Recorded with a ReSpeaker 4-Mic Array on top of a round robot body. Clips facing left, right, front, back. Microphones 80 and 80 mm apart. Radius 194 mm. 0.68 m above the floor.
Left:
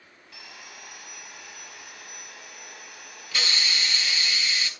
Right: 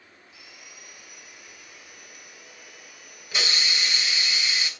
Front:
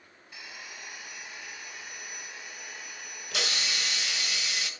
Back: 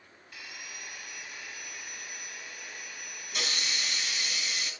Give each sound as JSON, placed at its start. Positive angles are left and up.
{"t": 0.3, "sound": "sawing", "azimuth_deg": 70, "distance_m": 4.0}
{"t": 3.3, "sound": "a hiss", "azimuth_deg": -20, "distance_m": 3.0}